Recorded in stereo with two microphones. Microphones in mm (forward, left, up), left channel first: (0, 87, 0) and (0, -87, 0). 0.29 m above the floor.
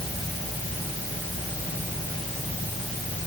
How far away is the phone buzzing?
No phone buzzing in this recording.